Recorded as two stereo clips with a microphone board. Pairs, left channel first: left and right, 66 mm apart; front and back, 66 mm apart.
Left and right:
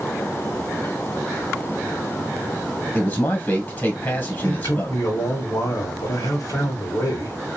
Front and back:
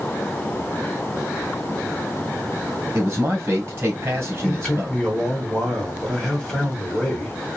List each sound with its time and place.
2.9 s a man speaking: 140° left, 1.7 m
4.4 s a man speaking: 80° left, 2.5 m